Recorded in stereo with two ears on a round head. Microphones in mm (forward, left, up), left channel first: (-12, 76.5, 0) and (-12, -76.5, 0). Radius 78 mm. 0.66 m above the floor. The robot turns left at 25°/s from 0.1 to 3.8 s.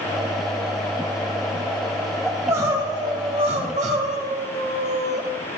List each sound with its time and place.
2.3 s crying: 15° right, 1.6 m; by 5.3 s 50° right, 1.6 m